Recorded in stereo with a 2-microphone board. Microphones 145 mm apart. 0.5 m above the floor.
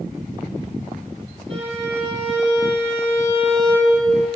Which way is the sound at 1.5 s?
40° right (ahead or behind).